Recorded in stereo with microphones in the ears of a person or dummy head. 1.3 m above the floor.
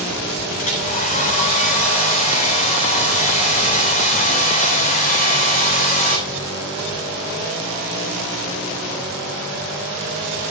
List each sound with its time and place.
0.6 s a hair dryer: 45° left (ahead or behind), 3.5 m